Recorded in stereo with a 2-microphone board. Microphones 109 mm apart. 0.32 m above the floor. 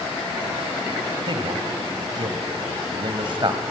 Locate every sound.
1.3 s a man speaking: 50° right (ahead or behind), 1.5 m